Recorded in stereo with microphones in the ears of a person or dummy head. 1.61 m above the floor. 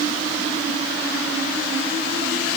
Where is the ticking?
I don't hear ticking.